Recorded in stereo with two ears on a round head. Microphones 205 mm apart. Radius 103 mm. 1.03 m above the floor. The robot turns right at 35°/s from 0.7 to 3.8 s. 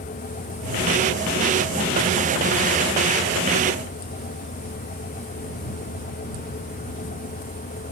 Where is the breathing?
I don't hear breathing.